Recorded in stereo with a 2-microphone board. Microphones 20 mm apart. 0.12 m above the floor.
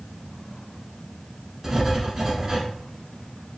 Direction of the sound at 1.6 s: 25° right (ahead or behind).